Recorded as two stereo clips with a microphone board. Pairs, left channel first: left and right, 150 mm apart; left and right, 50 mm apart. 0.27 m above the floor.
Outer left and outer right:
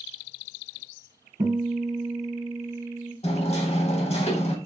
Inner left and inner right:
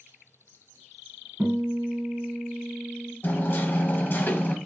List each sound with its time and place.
1.4 s a guitar: 55° right (ahead or behind), 2.0 m
3.2 s hammering: 50° left (ahead or behind), 0.8 m